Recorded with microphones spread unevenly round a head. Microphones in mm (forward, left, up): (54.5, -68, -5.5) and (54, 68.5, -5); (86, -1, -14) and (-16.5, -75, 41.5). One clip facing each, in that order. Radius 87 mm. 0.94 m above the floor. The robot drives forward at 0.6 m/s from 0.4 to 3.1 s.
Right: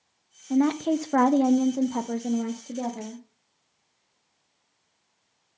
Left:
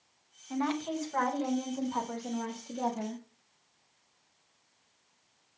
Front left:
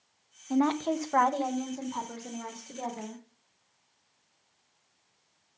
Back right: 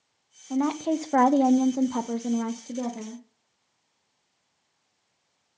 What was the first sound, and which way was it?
A woman speaking, 45° right.